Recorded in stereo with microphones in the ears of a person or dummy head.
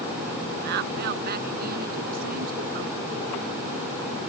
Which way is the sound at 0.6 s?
55° right (ahead or behind).